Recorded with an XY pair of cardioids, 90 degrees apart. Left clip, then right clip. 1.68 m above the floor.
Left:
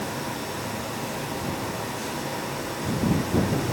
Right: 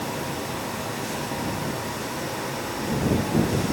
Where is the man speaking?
No man speaking in this recording.